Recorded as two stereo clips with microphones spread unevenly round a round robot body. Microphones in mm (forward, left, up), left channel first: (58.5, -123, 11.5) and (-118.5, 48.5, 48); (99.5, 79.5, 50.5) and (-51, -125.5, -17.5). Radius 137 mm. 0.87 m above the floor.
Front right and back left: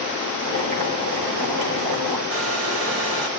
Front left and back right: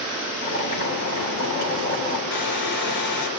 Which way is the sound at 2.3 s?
95° left.